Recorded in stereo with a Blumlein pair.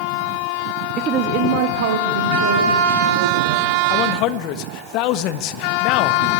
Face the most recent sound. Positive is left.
turn(degrees=40)